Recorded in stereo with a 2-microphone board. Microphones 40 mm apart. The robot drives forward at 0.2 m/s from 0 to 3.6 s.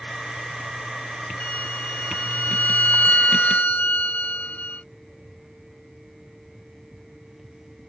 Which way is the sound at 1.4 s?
45° left (ahead or behind).